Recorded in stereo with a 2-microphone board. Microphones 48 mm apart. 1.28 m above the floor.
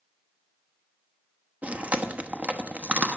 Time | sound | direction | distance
1.6 | chewing | 30° right (ahead or behind) | 0.9 m